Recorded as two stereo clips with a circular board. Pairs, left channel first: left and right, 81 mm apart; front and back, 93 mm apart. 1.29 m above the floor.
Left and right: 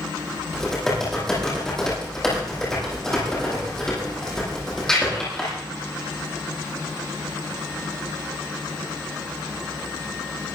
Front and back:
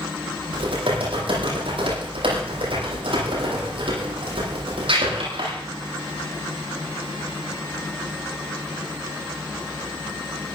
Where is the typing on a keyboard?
175° left, 9.5 m.